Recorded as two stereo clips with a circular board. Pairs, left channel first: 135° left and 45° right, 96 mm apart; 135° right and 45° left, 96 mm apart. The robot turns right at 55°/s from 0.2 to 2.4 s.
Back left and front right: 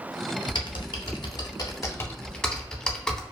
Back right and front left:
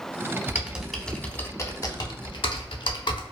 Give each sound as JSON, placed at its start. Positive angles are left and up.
{"t": 0.5, "sound": "typing on a keyboard", "azimuth_deg": 110, "distance_m": 0.5}